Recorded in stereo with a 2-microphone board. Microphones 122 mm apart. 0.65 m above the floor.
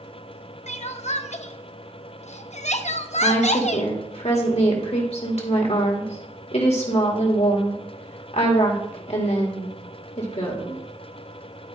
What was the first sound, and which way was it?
Crying, 70° left (ahead or behind).